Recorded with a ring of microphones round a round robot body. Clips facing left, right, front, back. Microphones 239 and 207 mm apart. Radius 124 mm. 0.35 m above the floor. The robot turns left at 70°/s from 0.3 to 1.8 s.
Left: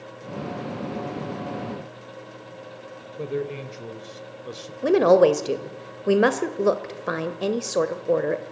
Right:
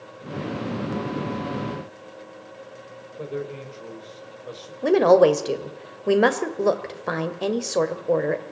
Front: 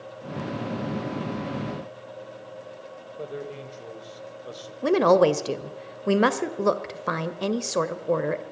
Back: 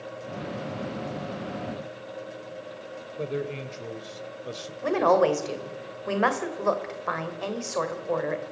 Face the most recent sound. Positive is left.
turn(degrees=5)